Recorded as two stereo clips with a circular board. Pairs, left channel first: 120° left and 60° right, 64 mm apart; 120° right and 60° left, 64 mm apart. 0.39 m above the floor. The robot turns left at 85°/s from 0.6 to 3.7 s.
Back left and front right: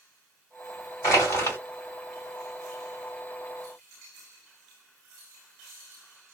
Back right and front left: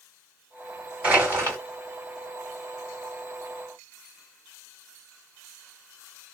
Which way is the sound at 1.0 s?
130° left.